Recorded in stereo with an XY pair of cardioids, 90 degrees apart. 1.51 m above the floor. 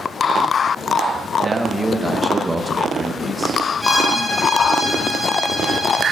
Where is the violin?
Straight ahead, 3.5 m.